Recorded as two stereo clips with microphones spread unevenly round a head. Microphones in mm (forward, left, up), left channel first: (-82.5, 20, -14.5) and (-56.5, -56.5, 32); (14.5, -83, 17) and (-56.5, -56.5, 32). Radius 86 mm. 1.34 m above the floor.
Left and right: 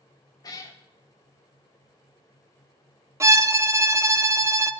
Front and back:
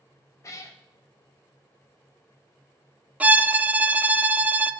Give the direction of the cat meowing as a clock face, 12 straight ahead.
11 o'clock.